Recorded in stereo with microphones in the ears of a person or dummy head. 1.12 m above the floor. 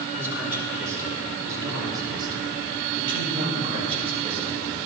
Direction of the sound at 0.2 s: 10° right (ahead or behind).